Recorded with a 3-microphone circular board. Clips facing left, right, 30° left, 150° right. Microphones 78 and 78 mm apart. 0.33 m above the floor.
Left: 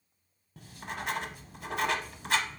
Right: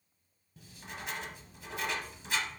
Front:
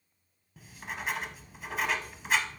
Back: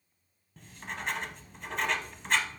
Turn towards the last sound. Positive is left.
turn(degrees=115)